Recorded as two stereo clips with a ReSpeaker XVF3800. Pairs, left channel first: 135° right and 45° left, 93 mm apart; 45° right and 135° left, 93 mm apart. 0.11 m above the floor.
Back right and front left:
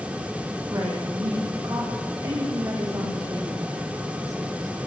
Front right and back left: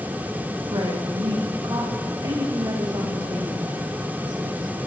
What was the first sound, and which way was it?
A woman speaking, 95° left.